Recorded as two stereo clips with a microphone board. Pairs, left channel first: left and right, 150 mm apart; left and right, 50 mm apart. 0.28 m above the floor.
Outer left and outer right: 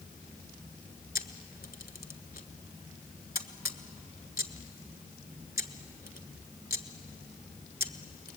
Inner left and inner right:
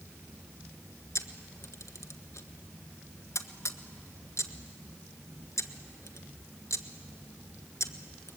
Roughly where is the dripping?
I don't hear dripping.